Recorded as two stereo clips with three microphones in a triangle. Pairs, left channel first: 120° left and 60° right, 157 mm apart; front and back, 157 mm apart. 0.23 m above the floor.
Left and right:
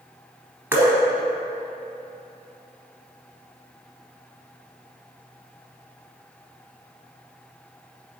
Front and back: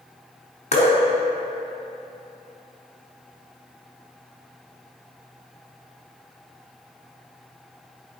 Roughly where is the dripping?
Ahead.